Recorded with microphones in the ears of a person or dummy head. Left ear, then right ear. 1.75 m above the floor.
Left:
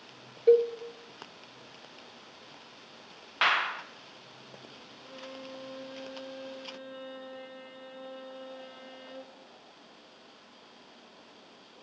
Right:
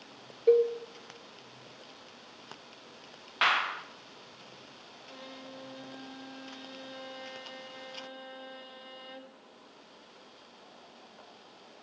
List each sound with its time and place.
0.5 s a cowbell: 5° left (ahead or behind), 0.5 m
3.4 s a clap: centre (ahead or behind), 0.9 m
5.0 s a violin: 15° right (ahead or behind), 1.1 m